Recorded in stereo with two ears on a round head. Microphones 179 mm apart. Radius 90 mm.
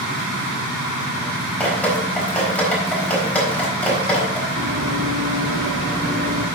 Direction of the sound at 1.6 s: 10° left (ahead or behind).